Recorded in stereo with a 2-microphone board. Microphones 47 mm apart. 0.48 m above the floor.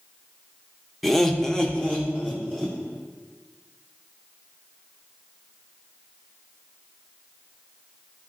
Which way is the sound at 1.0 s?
Centre (ahead or behind).